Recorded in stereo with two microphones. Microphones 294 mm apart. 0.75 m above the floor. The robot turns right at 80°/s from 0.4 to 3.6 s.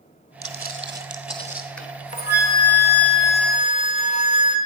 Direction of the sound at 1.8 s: 5° left.